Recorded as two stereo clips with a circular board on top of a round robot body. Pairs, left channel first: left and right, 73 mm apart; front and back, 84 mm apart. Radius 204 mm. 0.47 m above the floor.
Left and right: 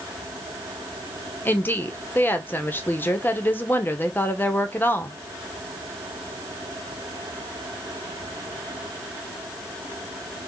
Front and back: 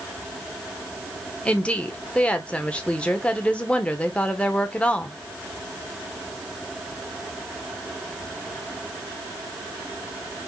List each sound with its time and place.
1.4 s a woman speaking: 60° left, 1.3 m